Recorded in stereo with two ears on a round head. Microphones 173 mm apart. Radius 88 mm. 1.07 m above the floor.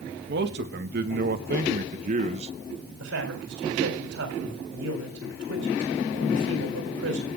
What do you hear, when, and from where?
0.3 s a man speaking: 60° right (ahead or behind), 1.8 m; by 2.5 s 30° right (ahead or behind), 0.8 m
3.0 s a man speaking: 80° right, 4 m